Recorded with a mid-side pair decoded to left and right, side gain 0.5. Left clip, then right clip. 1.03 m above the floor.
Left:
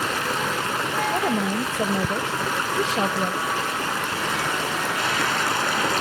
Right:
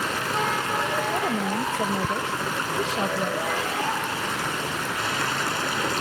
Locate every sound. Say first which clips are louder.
0.0 s running water: left 1 dB; 20° left
1.1 s a woman speaking: left 2 dB; 25° left